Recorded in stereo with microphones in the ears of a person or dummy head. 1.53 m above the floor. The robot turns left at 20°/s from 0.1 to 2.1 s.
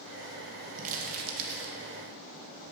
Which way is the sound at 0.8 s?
40° right (ahead or behind).